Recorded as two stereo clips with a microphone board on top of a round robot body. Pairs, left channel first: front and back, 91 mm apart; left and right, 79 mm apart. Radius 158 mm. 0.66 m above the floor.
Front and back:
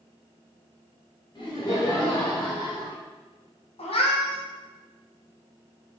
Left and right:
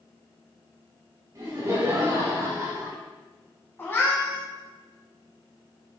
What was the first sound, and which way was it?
Laughter, 45° right.